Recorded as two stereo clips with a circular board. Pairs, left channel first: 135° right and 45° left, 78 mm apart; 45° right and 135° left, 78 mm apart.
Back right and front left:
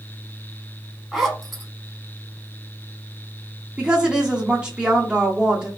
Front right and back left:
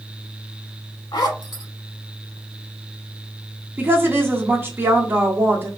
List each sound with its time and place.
1.1 s a zipper: 40° right, 0.8 m
3.8 s a woman speaking: 115° left, 0.8 m